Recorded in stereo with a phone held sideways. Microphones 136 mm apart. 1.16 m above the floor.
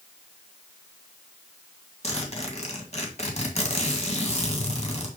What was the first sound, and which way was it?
A zipper, 55° left (ahead or behind).